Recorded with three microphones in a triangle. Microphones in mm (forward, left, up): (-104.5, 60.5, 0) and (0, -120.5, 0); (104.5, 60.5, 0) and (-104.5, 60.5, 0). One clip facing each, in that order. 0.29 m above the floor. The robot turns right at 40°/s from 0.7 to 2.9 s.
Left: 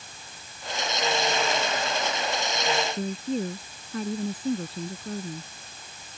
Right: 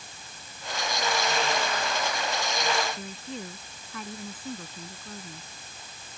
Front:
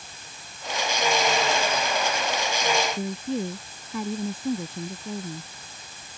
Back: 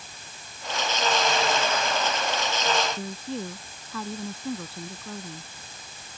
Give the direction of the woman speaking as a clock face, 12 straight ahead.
10 o'clock.